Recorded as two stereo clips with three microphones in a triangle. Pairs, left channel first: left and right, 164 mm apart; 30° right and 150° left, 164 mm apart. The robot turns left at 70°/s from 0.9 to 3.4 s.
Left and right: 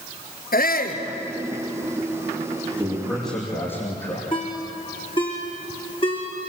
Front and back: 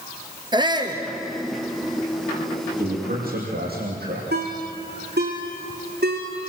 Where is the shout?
90° left, 2.5 m; by 1.0 s 85° left, 2.5 m.